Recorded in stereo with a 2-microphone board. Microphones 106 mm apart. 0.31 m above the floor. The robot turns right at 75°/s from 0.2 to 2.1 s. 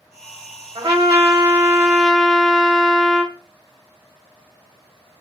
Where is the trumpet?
95° right, 0.7 m; by 3.4 s 5° left, 0.7 m.